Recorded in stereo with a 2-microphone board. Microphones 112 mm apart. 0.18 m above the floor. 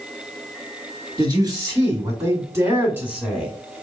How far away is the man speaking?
About 2 m.